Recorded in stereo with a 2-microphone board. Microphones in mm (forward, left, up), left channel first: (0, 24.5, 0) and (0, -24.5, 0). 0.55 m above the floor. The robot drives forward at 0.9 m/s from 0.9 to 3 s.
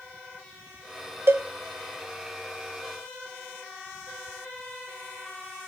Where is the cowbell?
55° right (ahead or behind), 0.6 m; by 1.4 s 60° right (ahead or behind), 0.5 m.